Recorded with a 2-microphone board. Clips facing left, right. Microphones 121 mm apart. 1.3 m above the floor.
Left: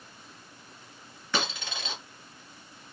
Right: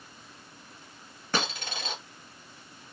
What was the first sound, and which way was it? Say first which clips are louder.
A dropped coin: right 1 dB; 45° right (ahead or behind).